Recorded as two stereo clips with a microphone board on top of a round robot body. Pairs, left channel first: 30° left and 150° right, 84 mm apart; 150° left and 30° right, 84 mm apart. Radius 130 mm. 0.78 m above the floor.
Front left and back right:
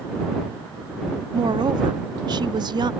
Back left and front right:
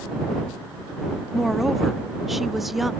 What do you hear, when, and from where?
1.3 s a woman speaking: 120° right